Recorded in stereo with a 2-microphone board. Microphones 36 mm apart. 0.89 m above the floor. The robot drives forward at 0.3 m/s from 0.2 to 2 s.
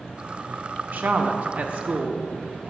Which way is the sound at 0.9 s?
50° right (ahead or behind).